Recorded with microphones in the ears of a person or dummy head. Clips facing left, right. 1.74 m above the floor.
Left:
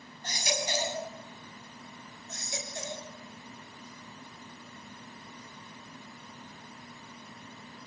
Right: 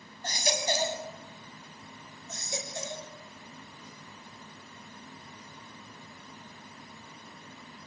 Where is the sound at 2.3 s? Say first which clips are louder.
Right 2 dB; 85° right, 7 m.